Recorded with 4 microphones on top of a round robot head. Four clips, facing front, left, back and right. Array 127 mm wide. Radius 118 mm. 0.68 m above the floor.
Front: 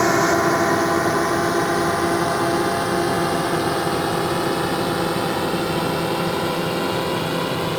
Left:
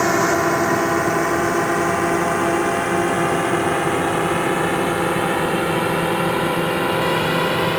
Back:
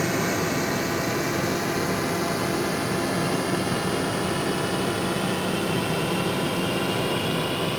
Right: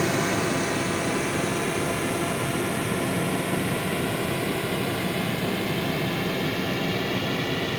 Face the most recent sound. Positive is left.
turn(degrees=70)